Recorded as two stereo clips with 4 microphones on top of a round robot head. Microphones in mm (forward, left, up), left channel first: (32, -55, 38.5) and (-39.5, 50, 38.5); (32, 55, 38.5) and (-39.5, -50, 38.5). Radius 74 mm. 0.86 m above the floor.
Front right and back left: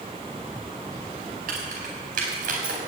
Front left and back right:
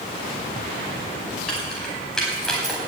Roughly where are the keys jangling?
Behind left.